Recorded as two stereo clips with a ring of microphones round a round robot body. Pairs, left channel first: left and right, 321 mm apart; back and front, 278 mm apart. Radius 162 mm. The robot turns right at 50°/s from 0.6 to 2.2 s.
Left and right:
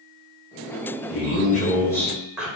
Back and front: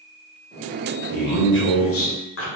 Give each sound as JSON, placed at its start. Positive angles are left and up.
{"t": 1.1, "sound": "a man speaking", "azimuth_deg": 130, "distance_m": 1.3}